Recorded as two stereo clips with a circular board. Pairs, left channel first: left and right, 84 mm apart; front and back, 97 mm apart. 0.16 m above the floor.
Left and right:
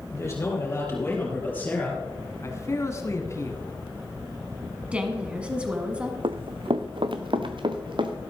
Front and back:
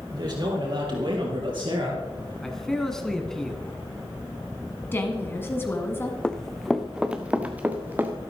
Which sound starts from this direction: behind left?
A man speaking, at 0.1 s.